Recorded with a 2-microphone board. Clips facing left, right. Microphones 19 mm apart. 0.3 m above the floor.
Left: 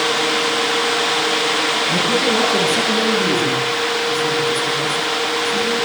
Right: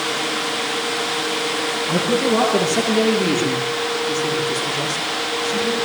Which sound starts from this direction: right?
A man speaking, at 1.9 s.